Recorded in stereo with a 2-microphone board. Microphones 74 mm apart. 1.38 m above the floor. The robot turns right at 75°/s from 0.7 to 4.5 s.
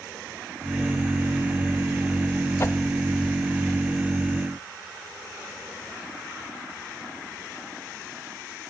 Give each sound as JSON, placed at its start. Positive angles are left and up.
{"t": 2.6, "sound": "a whoosh", "side_deg": 40, "distance_m": 0.8}